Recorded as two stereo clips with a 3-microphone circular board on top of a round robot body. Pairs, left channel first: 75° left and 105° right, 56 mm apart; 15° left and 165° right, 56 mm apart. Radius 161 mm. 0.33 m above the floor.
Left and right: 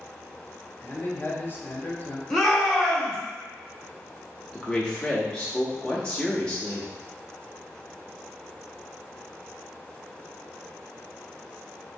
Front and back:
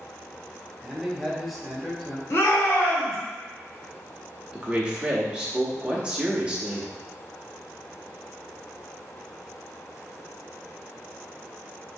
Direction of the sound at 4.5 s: 140° left.